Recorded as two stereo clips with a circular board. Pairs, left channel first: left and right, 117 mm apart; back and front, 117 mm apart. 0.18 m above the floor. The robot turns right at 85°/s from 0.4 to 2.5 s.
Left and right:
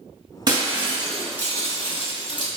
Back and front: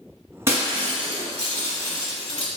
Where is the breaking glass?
60° right, 0.9 m; by 2.5 s 110° left, 0.9 m.